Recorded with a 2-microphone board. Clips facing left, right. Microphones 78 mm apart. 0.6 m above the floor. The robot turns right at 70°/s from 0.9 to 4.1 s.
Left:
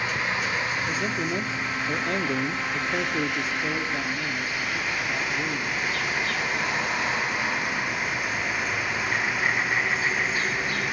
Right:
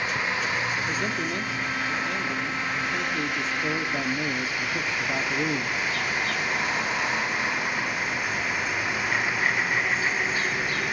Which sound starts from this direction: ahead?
A man speaking, at 0.9 s.